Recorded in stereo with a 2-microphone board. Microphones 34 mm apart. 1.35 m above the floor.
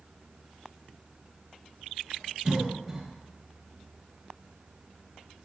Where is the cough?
5° right (ahead or behind), 0.9 m.